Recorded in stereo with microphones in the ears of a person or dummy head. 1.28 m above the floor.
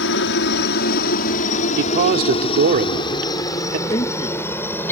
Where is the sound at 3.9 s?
25° left (ahead or behind).